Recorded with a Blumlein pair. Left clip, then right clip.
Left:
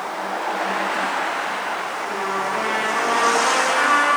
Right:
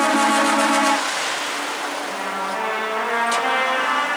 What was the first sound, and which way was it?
A trumpet, 20° left.